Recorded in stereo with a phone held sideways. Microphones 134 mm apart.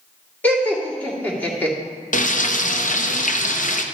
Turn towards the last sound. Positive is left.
turn(degrees=75)  # may be behind; listen again after turning